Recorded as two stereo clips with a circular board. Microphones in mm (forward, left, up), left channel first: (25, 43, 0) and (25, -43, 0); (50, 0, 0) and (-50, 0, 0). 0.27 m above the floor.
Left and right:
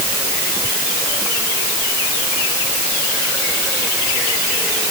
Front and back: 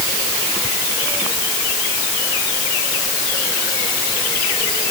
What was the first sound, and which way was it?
Only background noise.